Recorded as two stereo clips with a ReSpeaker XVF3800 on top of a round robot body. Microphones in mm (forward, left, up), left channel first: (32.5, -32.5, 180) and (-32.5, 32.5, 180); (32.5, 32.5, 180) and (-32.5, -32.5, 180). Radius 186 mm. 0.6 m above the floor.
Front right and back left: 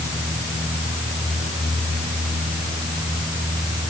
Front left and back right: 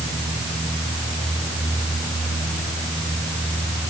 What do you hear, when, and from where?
Only background noise.